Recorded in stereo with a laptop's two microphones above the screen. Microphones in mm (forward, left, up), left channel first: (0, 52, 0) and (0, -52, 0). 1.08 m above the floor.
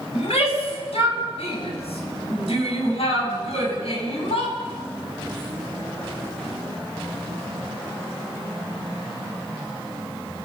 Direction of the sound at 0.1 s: 85° left.